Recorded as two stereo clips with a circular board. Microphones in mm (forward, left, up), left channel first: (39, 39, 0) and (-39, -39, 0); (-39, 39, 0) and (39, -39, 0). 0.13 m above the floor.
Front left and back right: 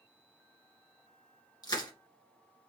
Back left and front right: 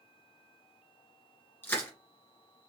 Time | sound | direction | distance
1.6 | crushing | 70° left | 1.7 m